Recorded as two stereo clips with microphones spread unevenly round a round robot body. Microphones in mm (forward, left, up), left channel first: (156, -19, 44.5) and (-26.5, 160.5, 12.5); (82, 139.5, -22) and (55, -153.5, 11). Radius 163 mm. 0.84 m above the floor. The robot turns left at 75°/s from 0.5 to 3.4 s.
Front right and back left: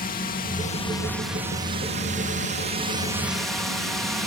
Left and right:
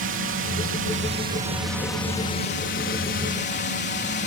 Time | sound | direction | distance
0.0 | a drone | 90° right | ?